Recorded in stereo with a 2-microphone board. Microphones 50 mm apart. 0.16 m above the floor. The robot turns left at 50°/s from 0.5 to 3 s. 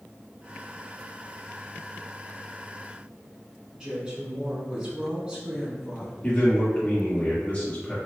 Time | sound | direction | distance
3.8 | a woman speaking | 20° right (ahead or behind) | 1.5 m
6.2 | a man speaking | 30° left (ahead or behind) | 2.0 m